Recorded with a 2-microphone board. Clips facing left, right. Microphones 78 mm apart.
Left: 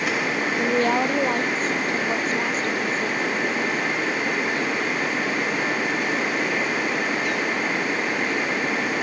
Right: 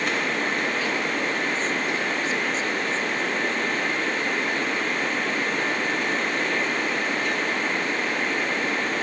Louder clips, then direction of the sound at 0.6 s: Left 5 dB; 45° left (ahead or behind).